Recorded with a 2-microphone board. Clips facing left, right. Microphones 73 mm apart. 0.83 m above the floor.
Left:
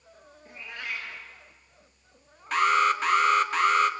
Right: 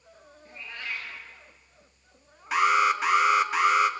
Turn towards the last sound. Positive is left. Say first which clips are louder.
# even
turn(degrees=-10)  # may be behind; listen again after turning